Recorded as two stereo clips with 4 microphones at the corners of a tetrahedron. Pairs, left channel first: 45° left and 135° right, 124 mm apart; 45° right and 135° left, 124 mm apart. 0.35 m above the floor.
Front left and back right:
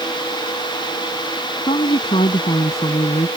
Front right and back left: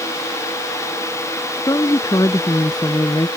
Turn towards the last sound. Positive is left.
turn(degrees=10)